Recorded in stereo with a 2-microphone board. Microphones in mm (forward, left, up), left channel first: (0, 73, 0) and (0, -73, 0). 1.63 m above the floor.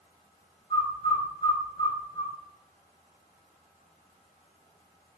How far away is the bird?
About 1.4 m.